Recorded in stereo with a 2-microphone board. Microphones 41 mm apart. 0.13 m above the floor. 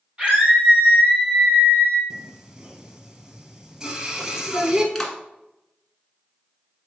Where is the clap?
5° left (ahead or behind), 1.4 m.